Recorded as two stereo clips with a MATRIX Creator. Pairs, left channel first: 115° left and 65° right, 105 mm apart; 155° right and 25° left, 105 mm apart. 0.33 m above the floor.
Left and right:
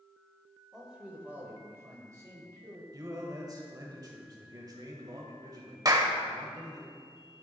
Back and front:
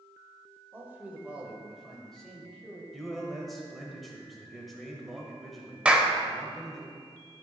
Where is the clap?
50° right, 0.8 m.